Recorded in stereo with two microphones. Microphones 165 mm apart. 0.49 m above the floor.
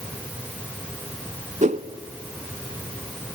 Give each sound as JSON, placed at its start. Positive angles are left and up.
{"t": 1.6, "sound": "a whoosh", "side_deg": -50, "distance_m": 1.1}